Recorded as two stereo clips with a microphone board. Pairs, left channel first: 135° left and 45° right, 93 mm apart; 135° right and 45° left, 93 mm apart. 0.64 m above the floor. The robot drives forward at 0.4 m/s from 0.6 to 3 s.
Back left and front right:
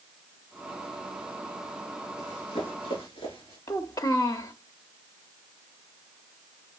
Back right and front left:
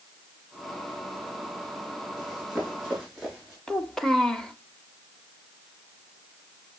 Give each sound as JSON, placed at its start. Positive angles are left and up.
{"t": 2.2, "sound": "running footsteps", "azimuth_deg": 135, "distance_m": 4.5}
{"t": 3.7, "sound": "a child speaking", "azimuth_deg": 145, "distance_m": 0.7}